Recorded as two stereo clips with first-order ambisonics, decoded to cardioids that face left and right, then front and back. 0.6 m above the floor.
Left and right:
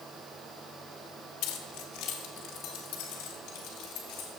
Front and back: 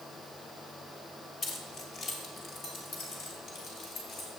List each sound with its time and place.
1.4 s keys jangling: 65° left, 1.2 m; by 4.3 s 55° left, 3 m